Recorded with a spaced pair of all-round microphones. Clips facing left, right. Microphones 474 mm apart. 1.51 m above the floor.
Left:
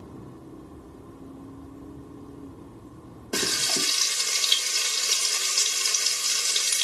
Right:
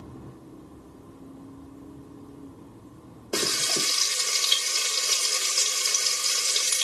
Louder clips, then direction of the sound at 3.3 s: Right 1 dB; 10° left (ahead or behind).